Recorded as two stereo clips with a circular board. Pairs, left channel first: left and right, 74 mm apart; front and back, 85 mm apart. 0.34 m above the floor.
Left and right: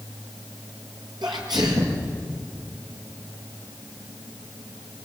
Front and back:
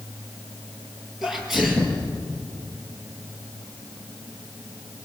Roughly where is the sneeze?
Right.